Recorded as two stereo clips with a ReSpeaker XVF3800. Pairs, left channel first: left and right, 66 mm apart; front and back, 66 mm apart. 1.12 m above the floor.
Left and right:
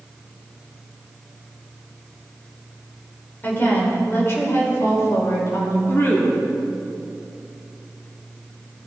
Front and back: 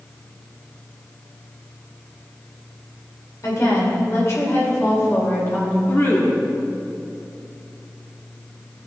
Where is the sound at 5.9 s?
45° left, 3.5 m.